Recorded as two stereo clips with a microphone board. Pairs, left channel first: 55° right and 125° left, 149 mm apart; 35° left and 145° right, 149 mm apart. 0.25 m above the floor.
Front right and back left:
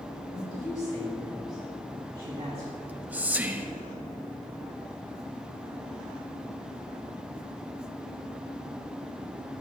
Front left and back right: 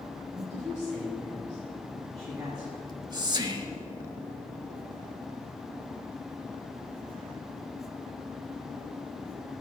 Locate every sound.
0.3 s a woman speaking: 110° right, 3 m; by 2.6 s 160° left, 2.5 m
2.7 s whispering: 170° right, 1.0 m